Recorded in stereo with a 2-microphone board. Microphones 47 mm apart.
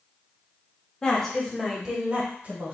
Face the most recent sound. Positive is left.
turn(degrees=-40)  # may be behind; listen again after turning